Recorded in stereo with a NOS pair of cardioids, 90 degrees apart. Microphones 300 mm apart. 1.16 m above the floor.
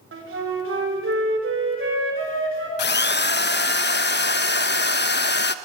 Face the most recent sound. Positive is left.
turn(degrees=35)